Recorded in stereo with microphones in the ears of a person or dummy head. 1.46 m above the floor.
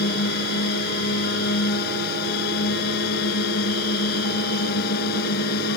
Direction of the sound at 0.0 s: 55° left (ahead or behind).